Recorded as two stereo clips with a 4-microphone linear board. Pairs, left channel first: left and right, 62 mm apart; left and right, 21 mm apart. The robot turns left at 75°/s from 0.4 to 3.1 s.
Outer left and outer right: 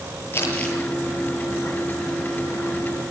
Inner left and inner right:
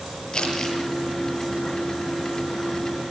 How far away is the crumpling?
About 8.5 m.